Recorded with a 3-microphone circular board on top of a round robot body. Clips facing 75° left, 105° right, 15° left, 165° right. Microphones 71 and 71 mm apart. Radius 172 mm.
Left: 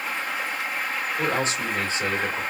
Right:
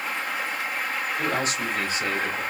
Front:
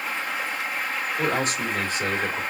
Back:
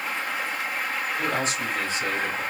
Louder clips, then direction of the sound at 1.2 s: Left 2 dB, front 3 dB; 20° left.